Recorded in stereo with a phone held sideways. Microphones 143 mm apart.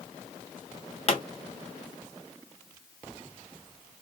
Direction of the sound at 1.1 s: 45° left (ahead or behind).